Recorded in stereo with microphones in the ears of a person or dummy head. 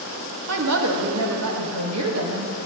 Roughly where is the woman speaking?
Right.